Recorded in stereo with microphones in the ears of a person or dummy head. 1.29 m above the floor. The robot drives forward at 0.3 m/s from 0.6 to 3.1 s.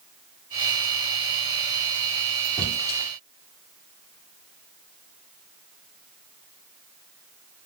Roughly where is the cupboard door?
Centre.